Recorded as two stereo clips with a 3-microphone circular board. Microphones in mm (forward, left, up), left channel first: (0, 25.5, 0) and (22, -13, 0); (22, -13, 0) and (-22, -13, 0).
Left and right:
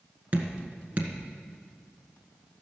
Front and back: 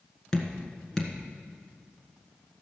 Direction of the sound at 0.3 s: 75° right.